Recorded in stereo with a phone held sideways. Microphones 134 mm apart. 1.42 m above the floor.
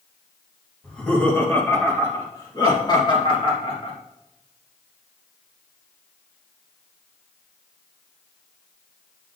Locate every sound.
0.8 s laughter: 5° left (ahead or behind), 2.5 m; by 3.9 s 45° left (ahead or behind), 3 m